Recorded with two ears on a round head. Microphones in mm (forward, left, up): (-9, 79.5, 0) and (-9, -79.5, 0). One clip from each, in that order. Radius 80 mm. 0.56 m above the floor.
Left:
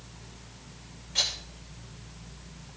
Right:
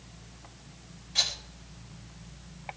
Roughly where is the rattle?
Centre.